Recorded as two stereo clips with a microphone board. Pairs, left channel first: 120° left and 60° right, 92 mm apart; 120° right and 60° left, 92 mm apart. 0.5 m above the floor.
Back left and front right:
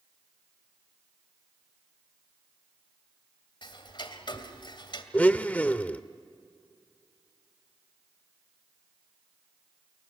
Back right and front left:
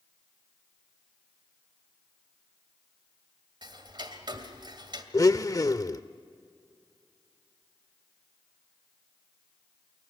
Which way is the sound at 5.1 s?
165° right.